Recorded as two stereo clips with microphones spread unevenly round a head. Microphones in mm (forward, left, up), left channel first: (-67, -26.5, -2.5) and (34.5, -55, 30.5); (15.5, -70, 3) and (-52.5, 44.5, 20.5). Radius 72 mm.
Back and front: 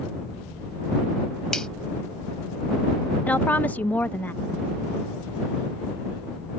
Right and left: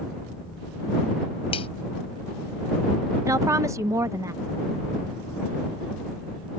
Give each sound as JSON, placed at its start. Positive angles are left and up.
{"t": 1.5, "sound": "a finger snap", "azimuth_deg": -110}
{"t": 3.3, "sound": "a woman speaking", "azimuth_deg": -175}